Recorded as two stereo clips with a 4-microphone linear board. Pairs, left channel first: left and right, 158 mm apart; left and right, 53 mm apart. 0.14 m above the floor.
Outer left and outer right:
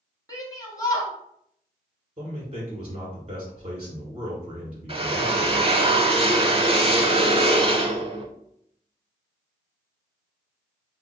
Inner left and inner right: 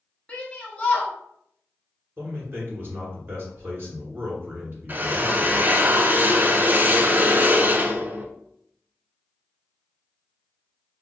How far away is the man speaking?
About 1.7 m.